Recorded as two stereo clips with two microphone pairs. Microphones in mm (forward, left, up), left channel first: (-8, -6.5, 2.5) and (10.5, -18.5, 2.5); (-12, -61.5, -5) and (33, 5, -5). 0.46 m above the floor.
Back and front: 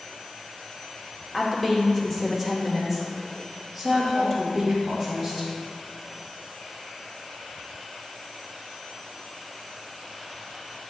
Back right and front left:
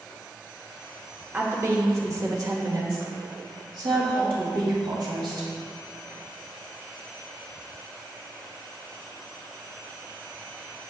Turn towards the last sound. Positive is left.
turn(degrees=60)